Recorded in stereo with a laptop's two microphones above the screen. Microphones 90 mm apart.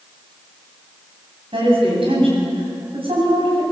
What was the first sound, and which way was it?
A woman speaking, 80° right.